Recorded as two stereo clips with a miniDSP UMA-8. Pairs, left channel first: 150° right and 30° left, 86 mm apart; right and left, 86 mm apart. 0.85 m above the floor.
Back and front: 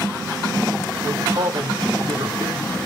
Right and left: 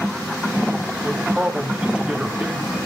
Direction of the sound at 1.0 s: 10° left.